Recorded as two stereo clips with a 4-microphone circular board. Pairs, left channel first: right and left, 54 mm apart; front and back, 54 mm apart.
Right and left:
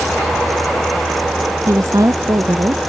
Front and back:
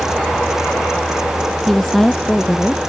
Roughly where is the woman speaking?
Left.